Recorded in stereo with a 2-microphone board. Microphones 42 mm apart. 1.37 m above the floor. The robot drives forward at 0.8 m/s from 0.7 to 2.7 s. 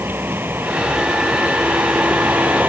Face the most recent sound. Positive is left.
turn(degrees=-50)  # may be behind; listen again after turning